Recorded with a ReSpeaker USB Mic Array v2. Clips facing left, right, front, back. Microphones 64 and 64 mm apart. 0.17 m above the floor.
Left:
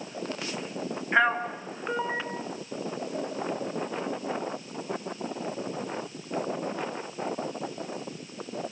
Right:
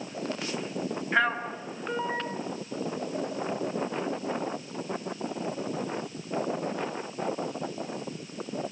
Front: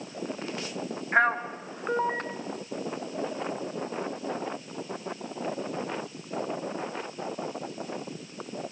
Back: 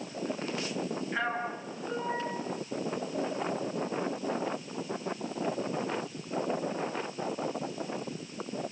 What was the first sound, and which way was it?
A man speaking, 15° left.